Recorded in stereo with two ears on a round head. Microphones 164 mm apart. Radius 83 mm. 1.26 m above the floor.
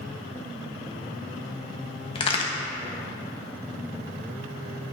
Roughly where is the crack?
Left.